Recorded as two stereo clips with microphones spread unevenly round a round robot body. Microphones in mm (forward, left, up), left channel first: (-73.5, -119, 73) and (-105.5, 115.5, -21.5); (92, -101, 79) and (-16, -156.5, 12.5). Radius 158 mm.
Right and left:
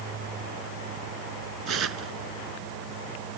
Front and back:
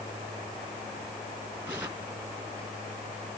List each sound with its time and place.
1.7 s tearing paper: 125° left